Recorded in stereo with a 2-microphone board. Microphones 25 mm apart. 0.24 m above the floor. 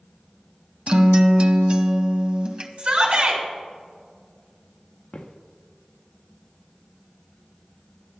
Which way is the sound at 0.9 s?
45° right (ahead or behind).